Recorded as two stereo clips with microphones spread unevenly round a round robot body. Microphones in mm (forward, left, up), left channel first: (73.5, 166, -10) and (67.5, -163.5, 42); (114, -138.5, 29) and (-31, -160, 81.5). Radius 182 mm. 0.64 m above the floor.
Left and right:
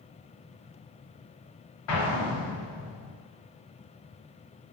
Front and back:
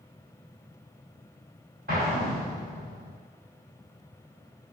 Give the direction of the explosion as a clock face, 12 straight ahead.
8 o'clock.